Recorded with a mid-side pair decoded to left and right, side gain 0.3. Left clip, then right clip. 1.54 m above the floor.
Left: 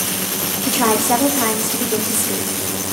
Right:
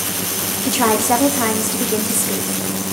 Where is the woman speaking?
15° right, 2 m.